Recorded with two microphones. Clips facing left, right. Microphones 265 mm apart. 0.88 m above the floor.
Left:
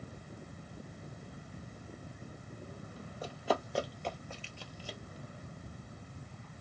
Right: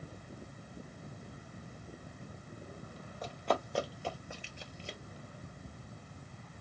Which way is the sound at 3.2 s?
10° left (ahead or behind).